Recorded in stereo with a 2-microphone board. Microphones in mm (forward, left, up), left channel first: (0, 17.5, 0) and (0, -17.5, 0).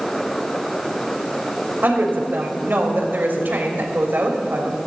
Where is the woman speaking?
75° right (ahead or behind), 3 m.